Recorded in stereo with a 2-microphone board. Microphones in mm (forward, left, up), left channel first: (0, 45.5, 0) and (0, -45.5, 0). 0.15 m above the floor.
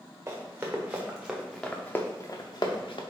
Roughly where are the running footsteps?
Right.